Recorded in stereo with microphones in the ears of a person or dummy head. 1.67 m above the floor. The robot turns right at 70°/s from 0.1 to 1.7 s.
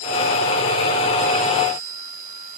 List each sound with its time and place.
Only background noise.